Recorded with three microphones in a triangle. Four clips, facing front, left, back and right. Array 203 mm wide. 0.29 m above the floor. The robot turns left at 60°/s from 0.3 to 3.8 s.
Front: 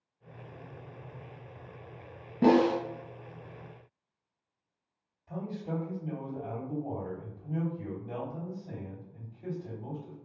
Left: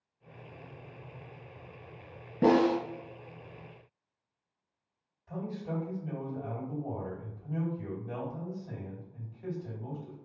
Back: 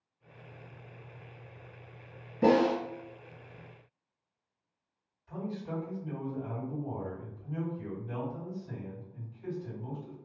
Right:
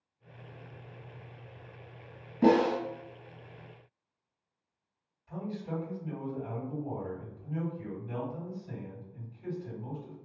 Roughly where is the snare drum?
Ahead left.